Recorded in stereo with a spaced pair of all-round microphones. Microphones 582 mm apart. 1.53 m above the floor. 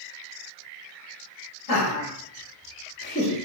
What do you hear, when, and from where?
1.7 s laughter: 55° left (ahead or behind), 1.1 m; by 3.4 s 5° left (ahead or behind), 0.5 m